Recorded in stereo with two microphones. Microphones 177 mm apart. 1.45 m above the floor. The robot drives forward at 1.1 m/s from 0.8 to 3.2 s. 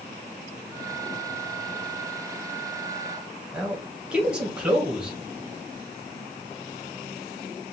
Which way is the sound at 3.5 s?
5° right (ahead or behind).